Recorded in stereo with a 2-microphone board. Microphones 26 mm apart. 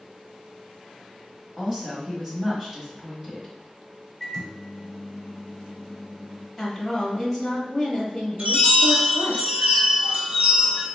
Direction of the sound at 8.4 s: 50° right (ahead or behind).